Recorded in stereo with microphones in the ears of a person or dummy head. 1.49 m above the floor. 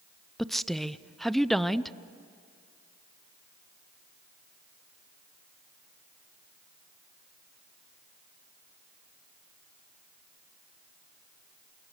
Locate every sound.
0.4 s a woman speaking: centre (ahead or behind), 0.7 m